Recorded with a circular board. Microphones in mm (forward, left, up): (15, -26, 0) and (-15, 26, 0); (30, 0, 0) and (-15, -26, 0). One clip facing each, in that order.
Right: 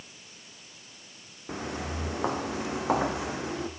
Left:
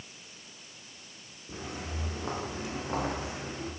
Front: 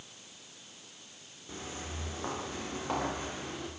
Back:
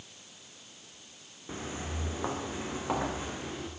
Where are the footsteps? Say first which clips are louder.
Right 5 dB, back 4 dB; 85° right, 5.5 m; by 3.7 s 65° right, 6 m.